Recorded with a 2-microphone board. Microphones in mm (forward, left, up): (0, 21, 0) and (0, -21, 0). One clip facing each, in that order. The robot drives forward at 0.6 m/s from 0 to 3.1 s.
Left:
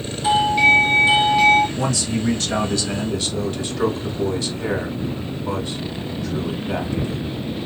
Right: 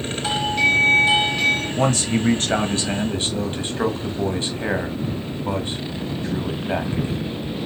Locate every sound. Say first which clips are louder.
0.2 s a doorbell: left 5 dB; 15° left (ahead or behind), 1.3 m; by 1.7 s 10° left (ahead or behind), 1.7 m
1.8 s a man speaking: right 2 dB; 45° right (ahead or behind), 1.2 m; by 7.4 s 30° right (ahead or behind), 1.6 m